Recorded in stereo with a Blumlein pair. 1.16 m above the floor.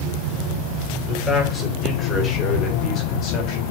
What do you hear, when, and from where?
1.1 s a man speaking: 15° left, 4.5 m; by 3.6 s 40° left, 3.5 m